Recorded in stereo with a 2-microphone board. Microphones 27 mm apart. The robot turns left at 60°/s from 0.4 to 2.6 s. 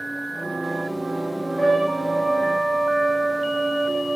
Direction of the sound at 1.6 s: 40° left.